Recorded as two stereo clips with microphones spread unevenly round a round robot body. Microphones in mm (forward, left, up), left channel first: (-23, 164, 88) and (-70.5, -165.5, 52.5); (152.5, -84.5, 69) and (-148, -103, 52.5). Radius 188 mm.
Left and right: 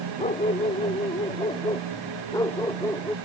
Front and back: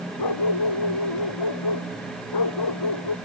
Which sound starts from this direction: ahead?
A dog barking, at 0.2 s.